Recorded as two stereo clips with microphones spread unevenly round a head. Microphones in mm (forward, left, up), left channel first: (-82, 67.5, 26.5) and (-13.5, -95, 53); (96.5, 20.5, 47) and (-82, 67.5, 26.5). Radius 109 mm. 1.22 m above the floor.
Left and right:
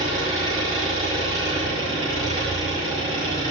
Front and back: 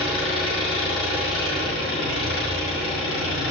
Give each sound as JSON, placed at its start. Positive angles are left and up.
{"t": 0.0, "sound": "an engine running", "azimuth_deg": -10, "distance_m": 5.5}